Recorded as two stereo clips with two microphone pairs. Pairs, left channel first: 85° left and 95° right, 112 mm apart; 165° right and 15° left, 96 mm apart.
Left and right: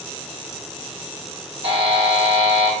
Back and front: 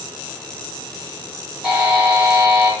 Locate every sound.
1.6 s a buzzer: 65° right, 1.3 m